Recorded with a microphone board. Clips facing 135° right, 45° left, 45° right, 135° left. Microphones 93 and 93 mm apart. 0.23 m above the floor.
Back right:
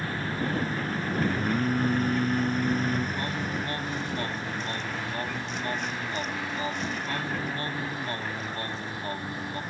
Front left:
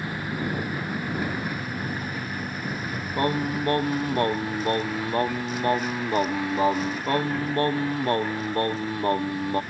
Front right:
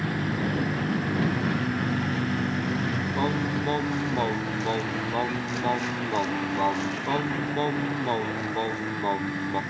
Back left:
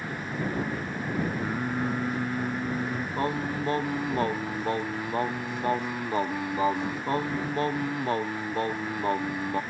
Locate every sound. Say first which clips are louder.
0.0 s a vehicle: front left 1 dB, front right 4 dB; 30° right; by 9.7 s 40° right
1.4 s singing: back right 5 dB, front right 2 dB; 150° right
3.2 s singing: front left 6 dB, front right 2 dB; 45° left